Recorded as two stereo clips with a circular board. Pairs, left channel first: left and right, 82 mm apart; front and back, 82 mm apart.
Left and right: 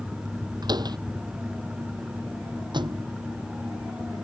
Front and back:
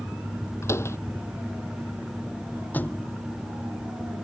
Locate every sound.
0.6 s a door slam: 55° right
2.7 s a thud: 70° right